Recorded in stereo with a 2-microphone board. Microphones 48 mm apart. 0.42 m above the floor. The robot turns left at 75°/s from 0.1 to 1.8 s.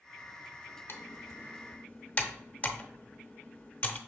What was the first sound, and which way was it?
Typing on a keyboard, 55° left (ahead or behind).